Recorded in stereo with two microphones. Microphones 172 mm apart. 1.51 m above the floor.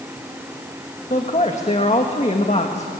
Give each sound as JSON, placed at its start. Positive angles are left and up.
{"t": 1.1, "sound": "a man speaking", "side_deg": 40, "distance_m": 1.7}